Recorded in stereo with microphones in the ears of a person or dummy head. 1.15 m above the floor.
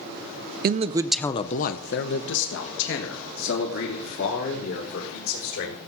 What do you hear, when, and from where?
0.6 s a man speaking: 45° right (ahead or behind), 0.6 m; by 5.8 s 75° left (ahead or behind), 4.5 m